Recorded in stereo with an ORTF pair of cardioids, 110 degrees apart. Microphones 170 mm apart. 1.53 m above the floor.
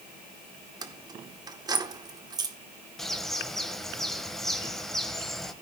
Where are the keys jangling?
25° right, 1.3 m.